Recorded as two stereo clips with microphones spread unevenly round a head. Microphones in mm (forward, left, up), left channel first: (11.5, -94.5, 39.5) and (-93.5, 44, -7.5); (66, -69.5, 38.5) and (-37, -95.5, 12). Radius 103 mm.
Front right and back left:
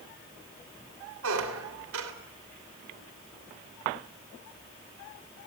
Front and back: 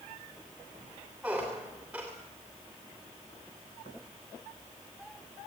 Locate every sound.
1.2 s a squeak: 105° left, 2.5 m